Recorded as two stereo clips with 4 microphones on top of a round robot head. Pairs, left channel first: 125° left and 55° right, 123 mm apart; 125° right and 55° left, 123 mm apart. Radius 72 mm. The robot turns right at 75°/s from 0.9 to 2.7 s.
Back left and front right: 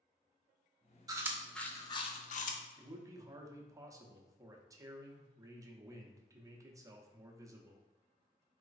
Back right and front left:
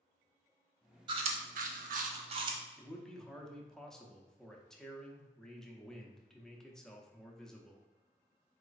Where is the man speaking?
45° right, 0.7 m.